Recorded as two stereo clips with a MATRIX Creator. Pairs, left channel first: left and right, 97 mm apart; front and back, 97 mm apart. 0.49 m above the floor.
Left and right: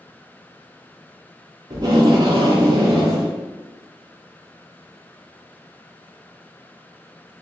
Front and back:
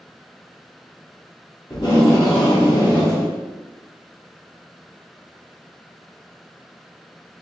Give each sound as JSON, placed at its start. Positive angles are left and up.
{"t": 1.7, "sound": "tape being pulled", "azimuth_deg": -40, "distance_m": 1.7}